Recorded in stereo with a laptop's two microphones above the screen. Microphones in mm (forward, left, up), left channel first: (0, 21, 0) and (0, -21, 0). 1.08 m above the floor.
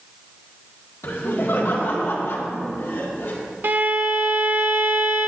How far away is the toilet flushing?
I don't hear a toilet flushing.